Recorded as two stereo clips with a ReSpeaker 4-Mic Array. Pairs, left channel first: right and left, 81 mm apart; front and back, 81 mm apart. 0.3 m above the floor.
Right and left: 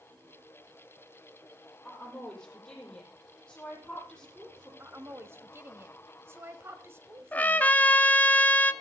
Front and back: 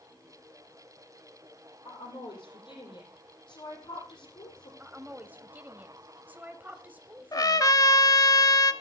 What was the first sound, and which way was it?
A woman speaking, 10° right.